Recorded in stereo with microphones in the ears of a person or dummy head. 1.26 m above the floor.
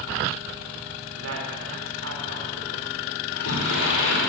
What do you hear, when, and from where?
1.2 s a woman speaking: 85° right, 3.5 m
3.2 s a sliding door: 85° left, 3.5 m